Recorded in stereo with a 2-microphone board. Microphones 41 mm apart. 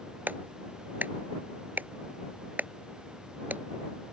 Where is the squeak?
I don't hear a squeak.